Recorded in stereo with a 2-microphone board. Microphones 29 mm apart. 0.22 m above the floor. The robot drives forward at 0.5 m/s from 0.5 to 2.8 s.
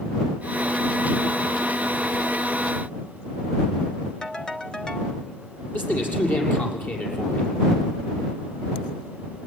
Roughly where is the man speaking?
Left.